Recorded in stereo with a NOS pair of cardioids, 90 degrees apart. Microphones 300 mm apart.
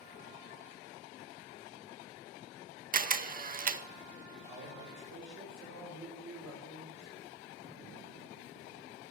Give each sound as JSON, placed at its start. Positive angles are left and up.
{"t": 2.9, "sound": "a camera shutter", "azimuth_deg": -30, "distance_m": 0.7}
{"t": 4.5, "sound": "a man speaking", "azimuth_deg": -70, "distance_m": 4.5}